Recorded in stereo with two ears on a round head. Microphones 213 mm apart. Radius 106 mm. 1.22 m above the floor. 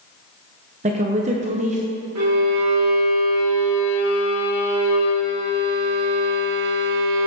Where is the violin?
80° right, 1.9 m.